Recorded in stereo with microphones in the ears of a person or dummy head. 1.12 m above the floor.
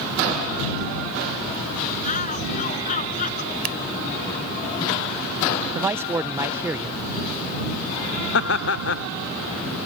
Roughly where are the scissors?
Right.